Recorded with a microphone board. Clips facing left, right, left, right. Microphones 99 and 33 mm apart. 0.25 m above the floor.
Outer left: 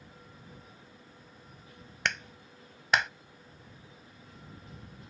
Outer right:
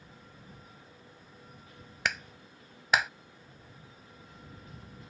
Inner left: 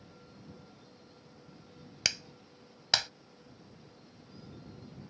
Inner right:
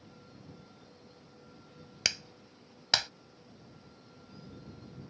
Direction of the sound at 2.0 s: Centre (ahead or behind).